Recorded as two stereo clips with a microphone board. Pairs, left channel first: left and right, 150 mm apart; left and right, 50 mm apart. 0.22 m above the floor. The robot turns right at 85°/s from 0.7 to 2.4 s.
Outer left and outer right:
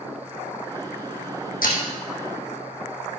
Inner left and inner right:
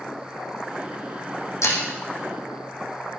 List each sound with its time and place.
1.6 s breaking glass: 85° left, 3 m; by 1.8 s 70° left (ahead or behind), 3 m